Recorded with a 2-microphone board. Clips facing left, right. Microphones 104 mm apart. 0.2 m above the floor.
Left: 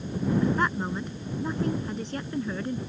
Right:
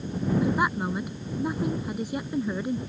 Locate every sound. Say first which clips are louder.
0.4 s a woman speaking: right 1 dB; 10° right (ahead or behind)